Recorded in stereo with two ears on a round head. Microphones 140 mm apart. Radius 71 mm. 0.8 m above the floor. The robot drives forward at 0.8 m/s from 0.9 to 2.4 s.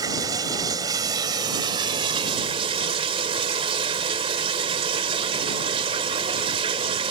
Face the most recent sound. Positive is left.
turn(degrees=-35)  # may be behind; listen again after turning